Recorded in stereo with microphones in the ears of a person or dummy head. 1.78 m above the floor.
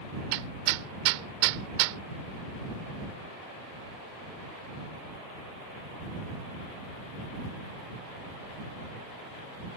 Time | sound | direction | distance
0.3 | hammering | 70° right (ahead or behind) | ?